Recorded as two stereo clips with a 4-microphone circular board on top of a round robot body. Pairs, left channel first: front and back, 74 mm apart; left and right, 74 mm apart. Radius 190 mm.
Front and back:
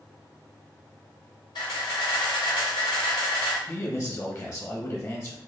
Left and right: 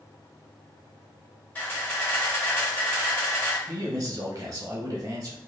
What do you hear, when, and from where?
1.6 s a camera shutter: 20° left, 1.6 m
3.7 s a man speaking: 45° right, 1.2 m